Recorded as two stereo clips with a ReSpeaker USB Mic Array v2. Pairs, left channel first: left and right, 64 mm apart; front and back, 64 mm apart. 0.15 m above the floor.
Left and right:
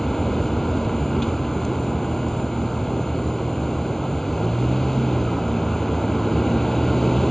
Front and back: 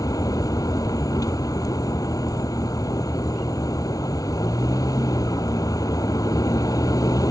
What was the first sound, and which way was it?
A vehicle, 5° left.